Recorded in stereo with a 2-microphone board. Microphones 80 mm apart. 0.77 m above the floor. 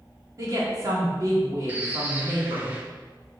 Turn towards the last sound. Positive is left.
turn(degrees=-20)  # may be behind; listen again after turning